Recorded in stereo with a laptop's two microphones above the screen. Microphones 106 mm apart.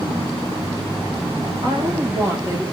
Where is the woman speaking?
35° right (ahead or behind), 2.0 m; by 2.6 s 30° right (ahead or behind), 2.5 m.